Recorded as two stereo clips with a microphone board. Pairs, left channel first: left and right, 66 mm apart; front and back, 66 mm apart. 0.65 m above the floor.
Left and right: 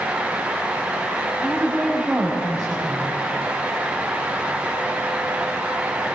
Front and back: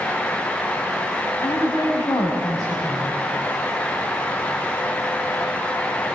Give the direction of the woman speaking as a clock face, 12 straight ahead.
12 o'clock.